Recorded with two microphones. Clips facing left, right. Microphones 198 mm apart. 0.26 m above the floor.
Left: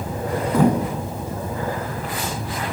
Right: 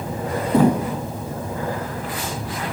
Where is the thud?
30° right (ahead or behind), 10 m.